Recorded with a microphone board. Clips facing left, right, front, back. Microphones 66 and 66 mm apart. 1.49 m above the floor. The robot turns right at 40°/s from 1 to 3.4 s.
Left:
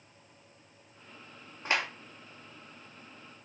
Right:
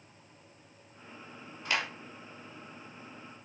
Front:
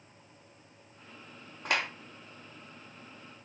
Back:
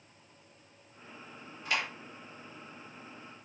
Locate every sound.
1.6 s a clap: 25° left, 3 m; by 1.9 s 35° left, 3 m